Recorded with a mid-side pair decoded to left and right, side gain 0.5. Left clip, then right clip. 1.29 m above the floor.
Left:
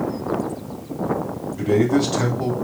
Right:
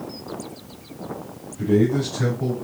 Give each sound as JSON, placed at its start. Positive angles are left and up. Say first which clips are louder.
{"t": 1.6, "sound": "a man speaking", "louder": "left 2 dB", "azimuth_deg": 60, "distance_m": 3.0}